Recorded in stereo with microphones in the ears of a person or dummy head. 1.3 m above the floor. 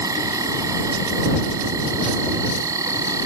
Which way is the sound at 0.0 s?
15° right (ahead or behind).